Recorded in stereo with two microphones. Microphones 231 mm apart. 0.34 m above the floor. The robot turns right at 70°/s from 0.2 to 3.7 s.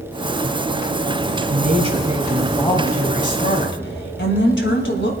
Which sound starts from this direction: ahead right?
A woman speaking, at 1.5 s.